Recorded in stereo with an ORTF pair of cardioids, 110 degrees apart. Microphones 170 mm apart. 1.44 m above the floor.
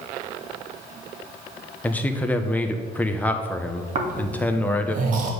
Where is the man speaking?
10° left, 1.1 m.